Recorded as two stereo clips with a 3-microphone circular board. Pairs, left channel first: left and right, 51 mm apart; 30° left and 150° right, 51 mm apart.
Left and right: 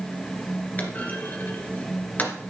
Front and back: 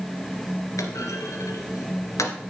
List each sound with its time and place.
0.8 s a clunk: 30° left, 2 m